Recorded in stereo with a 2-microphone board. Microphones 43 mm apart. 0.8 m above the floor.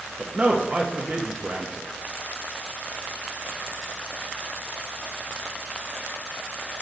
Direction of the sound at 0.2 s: 30° right (ahead or behind).